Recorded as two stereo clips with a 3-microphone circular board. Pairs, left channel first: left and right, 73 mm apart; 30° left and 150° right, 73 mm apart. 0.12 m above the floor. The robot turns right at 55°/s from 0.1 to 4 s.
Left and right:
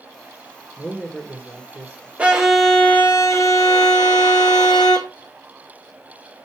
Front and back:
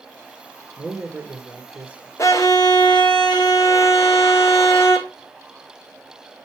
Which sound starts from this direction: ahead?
A violin, at 2.2 s.